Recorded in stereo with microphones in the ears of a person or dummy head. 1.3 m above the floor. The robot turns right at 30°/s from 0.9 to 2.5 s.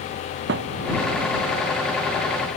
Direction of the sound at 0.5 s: 70° right (ahead or behind).